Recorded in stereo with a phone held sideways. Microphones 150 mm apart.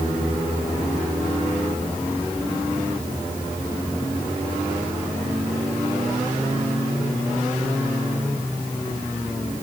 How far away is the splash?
No splash in this recording.